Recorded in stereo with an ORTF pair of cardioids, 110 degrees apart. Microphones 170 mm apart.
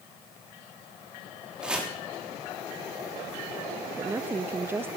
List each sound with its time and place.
1.6 s chopping: 5° right, 3.5 m
4.0 s a woman speaking: 15° right, 0.5 m